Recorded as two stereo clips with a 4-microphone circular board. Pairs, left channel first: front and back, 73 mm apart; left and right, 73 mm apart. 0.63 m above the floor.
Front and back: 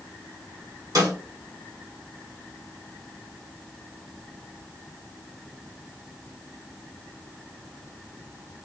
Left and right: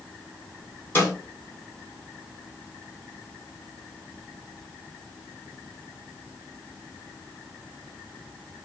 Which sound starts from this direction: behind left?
A snare drum, at 0.9 s.